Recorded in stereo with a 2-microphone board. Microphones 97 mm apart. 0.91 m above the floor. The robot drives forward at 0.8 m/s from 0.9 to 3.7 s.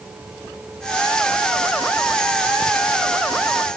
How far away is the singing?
No singing in this recording.